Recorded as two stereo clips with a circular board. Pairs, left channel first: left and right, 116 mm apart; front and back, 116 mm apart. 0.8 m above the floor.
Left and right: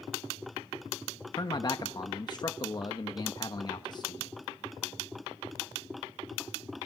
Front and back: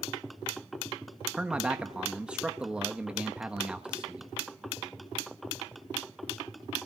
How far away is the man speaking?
About 1.0 m.